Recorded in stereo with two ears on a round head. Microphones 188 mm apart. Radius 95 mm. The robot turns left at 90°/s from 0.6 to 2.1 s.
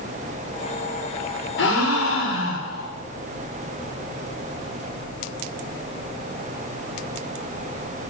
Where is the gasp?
120° left, 1.6 m; by 2.9 s 70° left, 1.6 m.